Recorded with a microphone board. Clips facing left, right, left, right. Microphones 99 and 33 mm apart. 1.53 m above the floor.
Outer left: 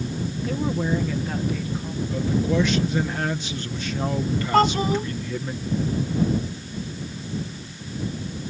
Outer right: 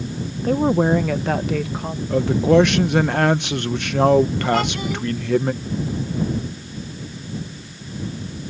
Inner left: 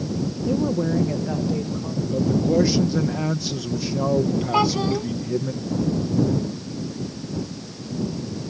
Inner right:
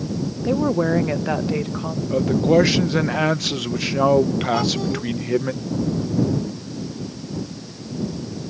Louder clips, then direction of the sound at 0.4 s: Outer right 9 dB, inner right 4 dB; 45° right (ahead or behind).